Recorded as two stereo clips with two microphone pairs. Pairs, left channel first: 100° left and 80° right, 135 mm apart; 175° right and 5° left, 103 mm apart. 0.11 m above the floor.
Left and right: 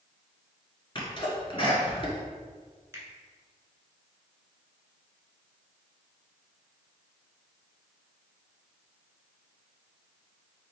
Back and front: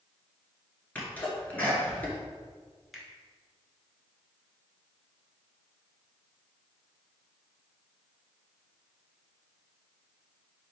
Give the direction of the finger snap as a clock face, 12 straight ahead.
2 o'clock.